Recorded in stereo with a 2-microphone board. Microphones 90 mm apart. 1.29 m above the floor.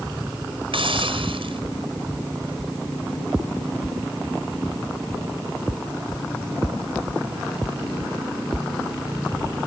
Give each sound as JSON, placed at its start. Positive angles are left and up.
{"t": 0.7, "sound": "a hiss", "side_deg": -80}